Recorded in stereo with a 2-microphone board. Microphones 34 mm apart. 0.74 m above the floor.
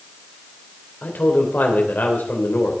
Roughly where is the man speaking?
Left.